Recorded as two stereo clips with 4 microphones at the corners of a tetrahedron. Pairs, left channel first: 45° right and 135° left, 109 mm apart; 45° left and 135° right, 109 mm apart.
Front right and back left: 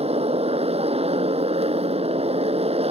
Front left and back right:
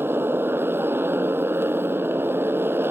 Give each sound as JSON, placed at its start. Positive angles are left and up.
{"t": 0.0, "sound": "a motorcycle", "azimuth_deg": 155}